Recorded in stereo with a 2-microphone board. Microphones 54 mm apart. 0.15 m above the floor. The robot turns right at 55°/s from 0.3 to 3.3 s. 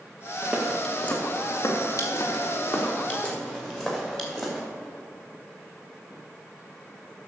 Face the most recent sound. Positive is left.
turn(degrees=10)  # may be behind; listen again after turning